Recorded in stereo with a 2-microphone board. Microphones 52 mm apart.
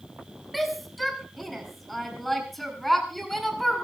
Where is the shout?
Centre (ahead or behind), 6 m.